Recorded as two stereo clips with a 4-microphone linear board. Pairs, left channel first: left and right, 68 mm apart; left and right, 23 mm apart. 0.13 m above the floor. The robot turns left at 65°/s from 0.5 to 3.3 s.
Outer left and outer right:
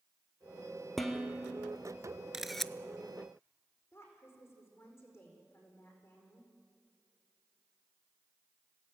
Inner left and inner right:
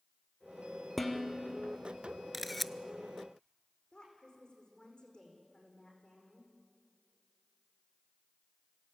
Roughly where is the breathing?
I don't hear breathing.